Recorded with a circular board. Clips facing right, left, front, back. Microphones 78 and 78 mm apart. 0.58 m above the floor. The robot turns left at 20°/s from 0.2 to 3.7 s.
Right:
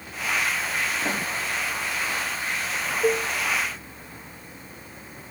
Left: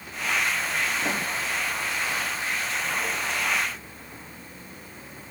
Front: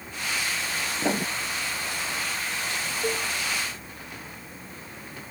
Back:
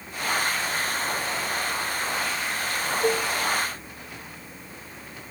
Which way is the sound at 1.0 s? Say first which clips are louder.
Even, front 2 dB; straight ahead.